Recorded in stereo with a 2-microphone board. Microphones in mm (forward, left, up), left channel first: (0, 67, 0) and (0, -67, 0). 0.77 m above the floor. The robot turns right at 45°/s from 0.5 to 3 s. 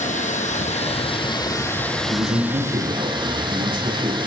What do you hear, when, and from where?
0.0 s running water: 105° left, 1.9 m; by 4.3 s 140° right, 1.9 m
2.1 s a man speaking: 135° right, 7.5 m; by 4.2 s 95° right, 7.5 m